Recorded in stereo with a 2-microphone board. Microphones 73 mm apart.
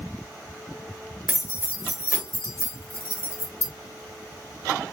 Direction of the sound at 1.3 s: 40° right (ahead or behind).